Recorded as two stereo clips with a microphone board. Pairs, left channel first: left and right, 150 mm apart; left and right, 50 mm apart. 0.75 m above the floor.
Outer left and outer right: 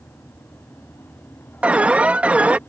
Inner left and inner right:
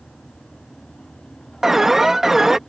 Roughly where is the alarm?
Centre.